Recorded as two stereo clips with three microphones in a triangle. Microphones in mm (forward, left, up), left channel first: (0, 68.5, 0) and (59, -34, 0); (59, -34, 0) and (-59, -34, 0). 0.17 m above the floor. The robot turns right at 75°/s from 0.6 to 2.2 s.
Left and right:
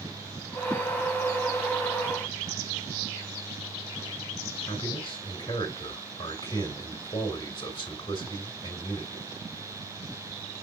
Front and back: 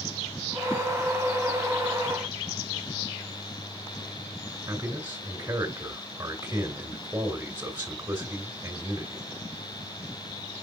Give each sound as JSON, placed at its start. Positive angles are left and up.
{"t": 4.7, "sound": "a man speaking", "azimuth_deg": 145, "distance_m": 2.0}